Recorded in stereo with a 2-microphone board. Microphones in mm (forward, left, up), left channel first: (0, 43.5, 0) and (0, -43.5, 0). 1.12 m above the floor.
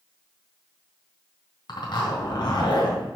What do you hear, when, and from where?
1.7 s a zipper: 55° left (ahead or behind), 3.5 m